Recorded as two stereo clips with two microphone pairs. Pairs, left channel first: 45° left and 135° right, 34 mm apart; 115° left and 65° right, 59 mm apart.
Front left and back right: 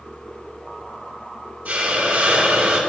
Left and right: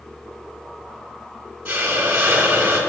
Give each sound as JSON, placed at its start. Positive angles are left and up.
{"t": 1.6, "sound": "a hiss", "azimuth_deg": -125, "distance_m": 3.5}